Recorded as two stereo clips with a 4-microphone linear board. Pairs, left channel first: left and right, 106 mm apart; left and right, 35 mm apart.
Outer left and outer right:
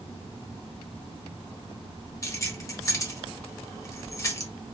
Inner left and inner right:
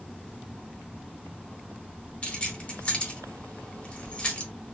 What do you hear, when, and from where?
2.2 s keys jangling: 30° left (ahead or behind), 0.8 m